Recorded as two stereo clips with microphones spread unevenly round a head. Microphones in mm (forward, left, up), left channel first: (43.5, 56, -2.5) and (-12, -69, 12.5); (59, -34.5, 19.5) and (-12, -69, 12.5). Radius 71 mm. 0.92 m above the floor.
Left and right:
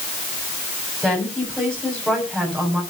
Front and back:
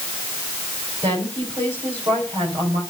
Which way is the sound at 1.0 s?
150° left.